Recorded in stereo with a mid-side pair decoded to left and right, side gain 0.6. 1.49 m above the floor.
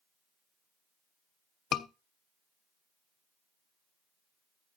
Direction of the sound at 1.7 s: 50° left.